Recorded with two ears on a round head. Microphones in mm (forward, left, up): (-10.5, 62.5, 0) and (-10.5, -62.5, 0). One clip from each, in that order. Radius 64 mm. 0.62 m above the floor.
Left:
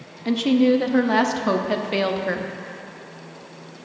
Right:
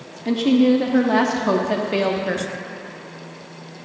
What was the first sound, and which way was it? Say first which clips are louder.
A woman speaking: right 1 dB; 25° left (ahead or behind).